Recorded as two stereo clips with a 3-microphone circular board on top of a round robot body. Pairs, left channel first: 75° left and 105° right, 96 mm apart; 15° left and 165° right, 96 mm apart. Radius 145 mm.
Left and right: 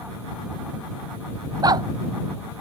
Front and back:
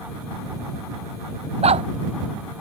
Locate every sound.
1.6 s a dog barking: 160° right